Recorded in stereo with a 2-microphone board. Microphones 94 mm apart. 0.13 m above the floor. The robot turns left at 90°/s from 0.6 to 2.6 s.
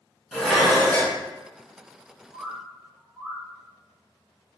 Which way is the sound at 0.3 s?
Centre (ahead or behind).